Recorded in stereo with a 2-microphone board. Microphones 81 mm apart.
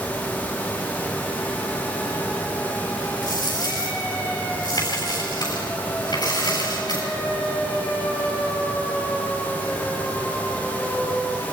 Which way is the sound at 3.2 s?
55° left (ahead or behind).